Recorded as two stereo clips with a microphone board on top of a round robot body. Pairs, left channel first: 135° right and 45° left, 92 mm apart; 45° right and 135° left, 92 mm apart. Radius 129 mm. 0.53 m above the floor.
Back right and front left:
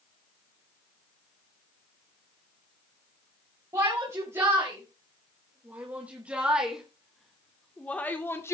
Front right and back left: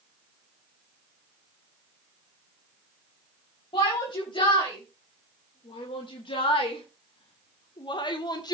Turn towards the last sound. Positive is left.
turn(degrees=-80)